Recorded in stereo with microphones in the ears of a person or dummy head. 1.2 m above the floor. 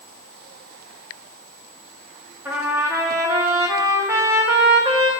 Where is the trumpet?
15° right (ahead or behind), 1.0 m.